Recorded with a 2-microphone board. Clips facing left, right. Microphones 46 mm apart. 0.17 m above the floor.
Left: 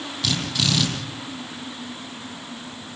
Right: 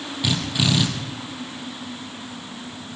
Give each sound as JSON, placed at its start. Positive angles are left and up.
{"t": 0.2, "sound": "a drill", "side_deg": -15, "distance_m": 6.0}